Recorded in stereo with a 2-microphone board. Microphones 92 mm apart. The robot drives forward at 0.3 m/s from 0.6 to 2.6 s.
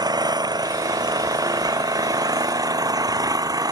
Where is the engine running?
50° right (ahead or behind); by 3.7 s 45° right (ahead or behind).